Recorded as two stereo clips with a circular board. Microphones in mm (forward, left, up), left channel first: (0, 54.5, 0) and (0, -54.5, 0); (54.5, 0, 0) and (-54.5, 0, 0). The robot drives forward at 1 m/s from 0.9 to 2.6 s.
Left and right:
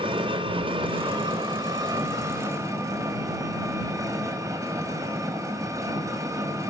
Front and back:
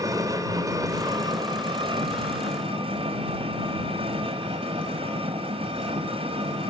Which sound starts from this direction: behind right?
An engine running, at 0.0 s.